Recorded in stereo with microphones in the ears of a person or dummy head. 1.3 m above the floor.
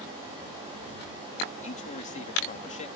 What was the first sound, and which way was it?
A man speaking, 35° left (ahead or behind).